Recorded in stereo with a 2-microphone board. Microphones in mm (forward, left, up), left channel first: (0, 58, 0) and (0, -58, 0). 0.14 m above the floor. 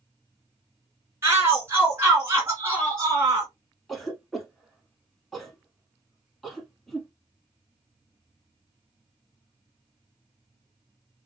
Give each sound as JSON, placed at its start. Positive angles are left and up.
{"t": 1.2, "sound": "a shout", "side_deg": -25, "distance_m": 1.9}
{"t": 3.9, "sound": "a cough", "side_deg": 0, "distance_m": 1.1}